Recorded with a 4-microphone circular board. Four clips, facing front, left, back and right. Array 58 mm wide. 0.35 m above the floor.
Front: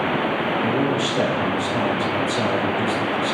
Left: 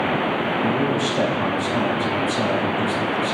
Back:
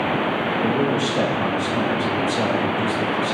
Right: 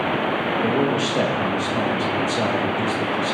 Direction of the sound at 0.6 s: 80° right.